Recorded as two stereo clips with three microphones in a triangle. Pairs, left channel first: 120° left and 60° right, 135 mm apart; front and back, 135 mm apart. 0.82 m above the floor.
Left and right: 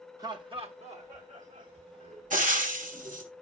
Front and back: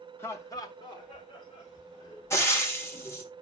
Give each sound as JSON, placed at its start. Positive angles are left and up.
{"t": 0.2, "sound": "laughter", "azimuth_deg": -50, "distance_m": 1.0}
{"t": 2.3, "sound": "frying", "azimuth_deg": -70, "distance_m": 1.2}